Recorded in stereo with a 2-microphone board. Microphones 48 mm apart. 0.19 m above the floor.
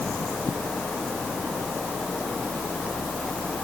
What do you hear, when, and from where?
Only background noise.